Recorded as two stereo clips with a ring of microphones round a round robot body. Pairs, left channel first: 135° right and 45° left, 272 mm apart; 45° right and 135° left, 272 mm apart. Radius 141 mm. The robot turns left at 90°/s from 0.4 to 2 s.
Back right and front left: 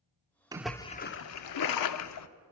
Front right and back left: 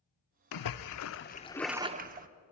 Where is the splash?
30° right, 0.7 m; by 2.3 s 165° right, 0.7 m.